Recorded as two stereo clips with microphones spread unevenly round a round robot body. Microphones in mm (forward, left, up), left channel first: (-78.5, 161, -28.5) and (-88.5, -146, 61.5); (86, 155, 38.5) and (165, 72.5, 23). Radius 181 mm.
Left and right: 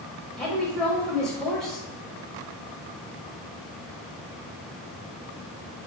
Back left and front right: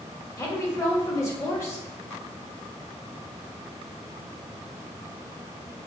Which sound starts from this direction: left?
A woman speaking, at 0.4 s.